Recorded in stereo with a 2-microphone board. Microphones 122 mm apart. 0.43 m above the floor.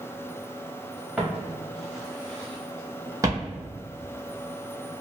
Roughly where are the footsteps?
Centre.